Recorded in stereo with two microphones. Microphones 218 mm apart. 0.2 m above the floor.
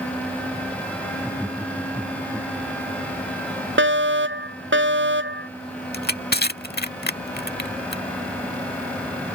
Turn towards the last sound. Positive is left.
turn(degrees=45)  # may be behind; listen again after turning